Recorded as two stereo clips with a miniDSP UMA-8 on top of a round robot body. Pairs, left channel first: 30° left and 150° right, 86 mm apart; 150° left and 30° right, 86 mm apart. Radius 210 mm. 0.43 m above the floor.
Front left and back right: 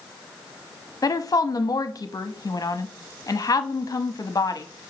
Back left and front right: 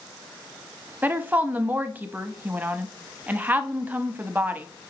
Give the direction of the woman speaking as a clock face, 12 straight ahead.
11 o'clock.